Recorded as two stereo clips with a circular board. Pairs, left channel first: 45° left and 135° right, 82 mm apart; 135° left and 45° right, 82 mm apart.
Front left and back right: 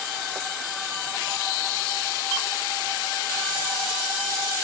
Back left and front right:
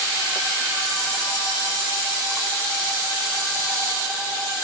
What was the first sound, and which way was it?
Only background noise.